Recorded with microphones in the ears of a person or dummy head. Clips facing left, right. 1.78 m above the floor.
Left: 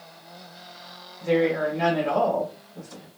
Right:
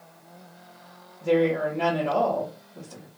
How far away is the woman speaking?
About 1.8 m.